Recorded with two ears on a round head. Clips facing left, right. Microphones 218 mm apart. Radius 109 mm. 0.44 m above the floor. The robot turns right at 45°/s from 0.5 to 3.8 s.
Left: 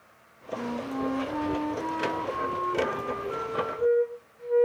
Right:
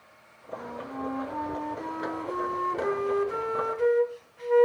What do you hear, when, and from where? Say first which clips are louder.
0.6 s a flute: left 6 dB; 120° left, 0.8 m; by 4.7 s 90° right, 0.8 m